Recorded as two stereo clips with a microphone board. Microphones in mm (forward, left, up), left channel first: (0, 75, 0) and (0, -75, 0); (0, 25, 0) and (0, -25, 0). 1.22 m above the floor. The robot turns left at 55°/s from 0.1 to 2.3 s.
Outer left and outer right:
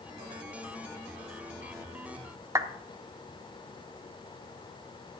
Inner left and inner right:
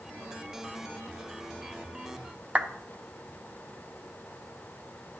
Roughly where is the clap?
Right.